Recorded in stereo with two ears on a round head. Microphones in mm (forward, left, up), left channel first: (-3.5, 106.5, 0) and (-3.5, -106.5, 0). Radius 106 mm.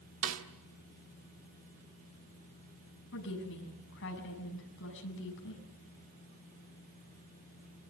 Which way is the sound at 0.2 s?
60° right (ahead or behind).